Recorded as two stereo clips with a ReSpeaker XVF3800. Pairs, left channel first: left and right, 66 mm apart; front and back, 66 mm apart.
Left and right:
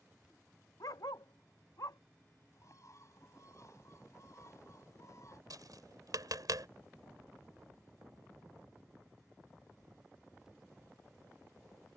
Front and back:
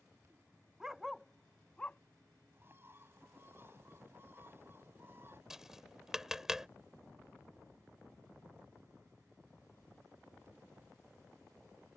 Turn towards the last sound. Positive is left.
turn(degrees=-100)